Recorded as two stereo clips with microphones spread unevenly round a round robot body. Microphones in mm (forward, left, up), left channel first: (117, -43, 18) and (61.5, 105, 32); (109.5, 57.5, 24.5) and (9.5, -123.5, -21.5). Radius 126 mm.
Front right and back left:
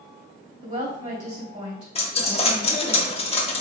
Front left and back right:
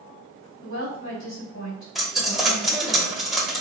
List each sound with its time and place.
0.6 s a woman speaking: 95° left, 2.0 m
1.9 s a dropped coin: 40° right, 0.6 m